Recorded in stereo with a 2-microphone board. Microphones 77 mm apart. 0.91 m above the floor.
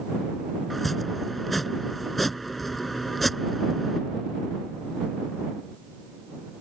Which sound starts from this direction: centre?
Chopping, at 0.7 s.